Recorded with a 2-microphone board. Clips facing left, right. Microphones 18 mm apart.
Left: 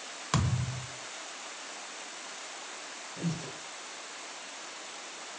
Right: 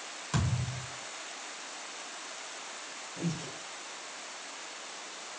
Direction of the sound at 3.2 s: 70° right (ahead or behind).